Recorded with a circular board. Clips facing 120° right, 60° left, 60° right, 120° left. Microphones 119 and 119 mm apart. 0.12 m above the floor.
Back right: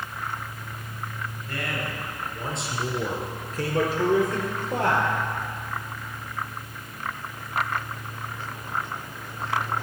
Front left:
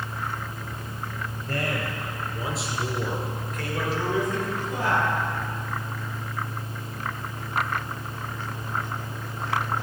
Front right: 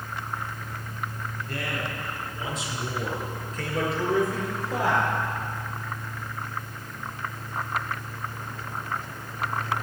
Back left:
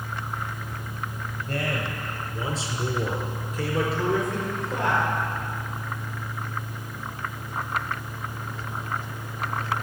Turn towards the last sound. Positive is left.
turn(degrees=-140)